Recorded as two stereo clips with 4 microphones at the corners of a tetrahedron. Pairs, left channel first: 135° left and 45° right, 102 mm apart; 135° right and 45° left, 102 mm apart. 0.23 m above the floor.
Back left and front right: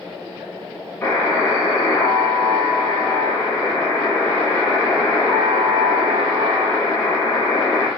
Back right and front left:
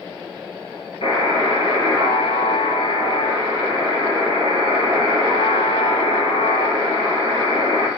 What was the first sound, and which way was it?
A buzzer, 155° right.